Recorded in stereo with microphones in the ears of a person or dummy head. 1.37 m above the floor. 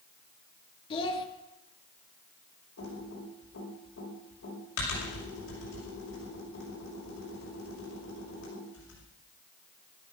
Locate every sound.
0.9 s a child speaking: 30° left (ahead or behind), 2 m
2.8 s typing on a keyboard: 85° left, 7 m